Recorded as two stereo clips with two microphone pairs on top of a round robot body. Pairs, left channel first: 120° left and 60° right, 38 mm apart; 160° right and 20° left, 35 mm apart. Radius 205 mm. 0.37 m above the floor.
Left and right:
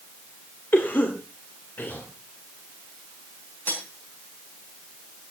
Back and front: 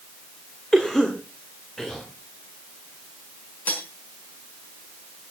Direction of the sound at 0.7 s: 125° left.